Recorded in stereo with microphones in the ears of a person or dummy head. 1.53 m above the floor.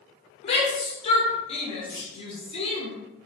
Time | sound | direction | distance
0.4 | a shout | 35° left (ahead or behind) | 0.8 m
1.9 | a clunk | 25° left (ahead or behind) | 1.9 m